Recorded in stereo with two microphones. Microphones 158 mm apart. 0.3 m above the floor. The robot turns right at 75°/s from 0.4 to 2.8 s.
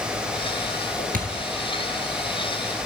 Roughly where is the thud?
Right.